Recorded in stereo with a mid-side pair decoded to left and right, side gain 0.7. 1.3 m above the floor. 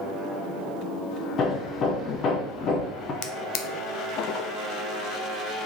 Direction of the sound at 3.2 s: 60° left.